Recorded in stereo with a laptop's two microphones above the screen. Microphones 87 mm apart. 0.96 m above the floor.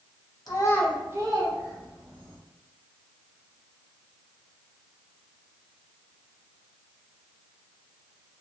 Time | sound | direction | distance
0.5 | a child speaking | 50° left (ahead or behind) | 0.8 m